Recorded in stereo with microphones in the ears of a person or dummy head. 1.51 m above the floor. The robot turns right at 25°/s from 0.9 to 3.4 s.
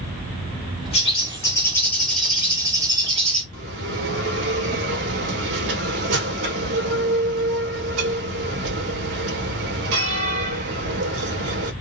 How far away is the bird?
About 1.1 m.